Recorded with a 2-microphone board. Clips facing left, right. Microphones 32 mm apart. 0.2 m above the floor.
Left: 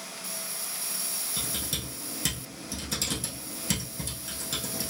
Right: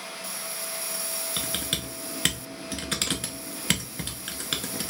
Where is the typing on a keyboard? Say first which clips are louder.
Right 4 dB; 55° right (ahead or behind), 0.6 m.